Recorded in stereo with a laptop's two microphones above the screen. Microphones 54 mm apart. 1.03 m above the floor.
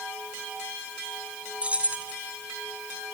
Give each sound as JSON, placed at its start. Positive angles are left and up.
{"t": 1.6, "sound": "keys jangling", "side_deg": -25, "distance_m": 4.0}